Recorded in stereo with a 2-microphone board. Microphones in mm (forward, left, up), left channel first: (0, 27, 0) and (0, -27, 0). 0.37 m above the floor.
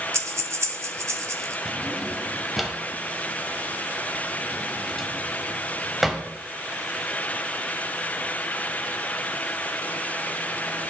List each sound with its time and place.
0.1 s breathing: 70° right (ahead or behind), 0.9 m
1.6 s a drawer: centre (ahead or behind), 1.2 m